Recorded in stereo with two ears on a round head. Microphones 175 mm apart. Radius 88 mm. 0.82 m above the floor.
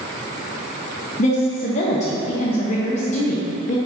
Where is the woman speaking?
35° left (ahead or behind), 0.5 m.